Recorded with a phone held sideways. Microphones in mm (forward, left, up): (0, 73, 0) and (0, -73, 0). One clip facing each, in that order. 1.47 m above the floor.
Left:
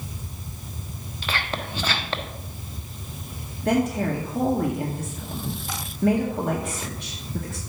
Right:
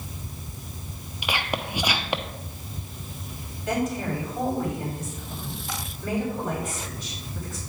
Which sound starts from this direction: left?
A woman speaking, at 3.6 s.